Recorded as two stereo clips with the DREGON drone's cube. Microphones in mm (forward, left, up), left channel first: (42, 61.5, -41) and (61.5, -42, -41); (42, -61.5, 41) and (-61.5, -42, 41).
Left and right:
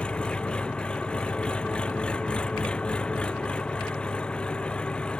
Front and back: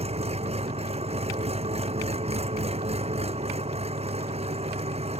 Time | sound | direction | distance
0.0 | an engine running | straight behind | ?